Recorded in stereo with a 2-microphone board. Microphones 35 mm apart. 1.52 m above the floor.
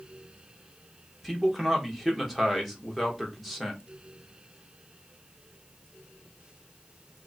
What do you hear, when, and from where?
1.2 s a man speaking: 5° left (ahead or behind), 1.3 m